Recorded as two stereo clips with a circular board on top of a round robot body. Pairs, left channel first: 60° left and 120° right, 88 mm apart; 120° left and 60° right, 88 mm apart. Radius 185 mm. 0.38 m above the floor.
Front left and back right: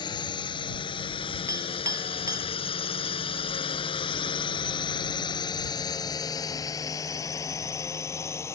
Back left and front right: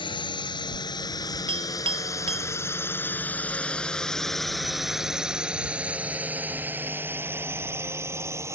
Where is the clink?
65° right.